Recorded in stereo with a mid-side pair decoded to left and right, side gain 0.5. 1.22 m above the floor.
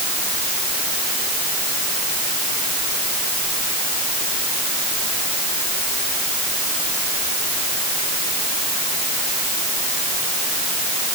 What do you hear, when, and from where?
Only background noise.